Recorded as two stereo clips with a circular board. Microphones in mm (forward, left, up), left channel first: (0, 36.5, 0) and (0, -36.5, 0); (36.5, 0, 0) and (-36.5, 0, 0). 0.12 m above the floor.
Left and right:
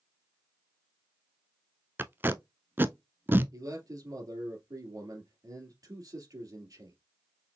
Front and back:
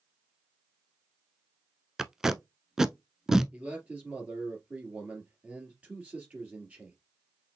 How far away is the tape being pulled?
About 0.5 m.